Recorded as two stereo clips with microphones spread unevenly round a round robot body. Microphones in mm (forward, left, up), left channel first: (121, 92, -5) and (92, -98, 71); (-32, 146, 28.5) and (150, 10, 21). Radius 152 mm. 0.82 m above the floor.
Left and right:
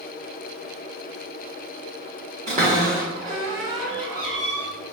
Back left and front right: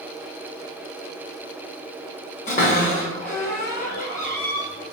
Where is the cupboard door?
150° right, 0.7 m.